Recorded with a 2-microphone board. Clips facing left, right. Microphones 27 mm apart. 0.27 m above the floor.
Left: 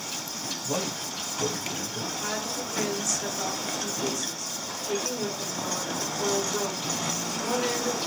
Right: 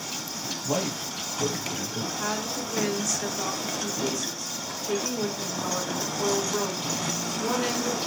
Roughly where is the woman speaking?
Centre.